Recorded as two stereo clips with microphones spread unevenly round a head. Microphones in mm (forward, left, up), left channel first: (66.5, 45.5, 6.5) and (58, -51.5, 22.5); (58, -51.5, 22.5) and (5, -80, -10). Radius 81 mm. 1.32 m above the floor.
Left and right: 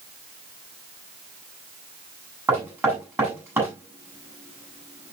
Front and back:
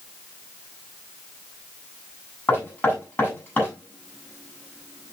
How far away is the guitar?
I don't hear a guitar.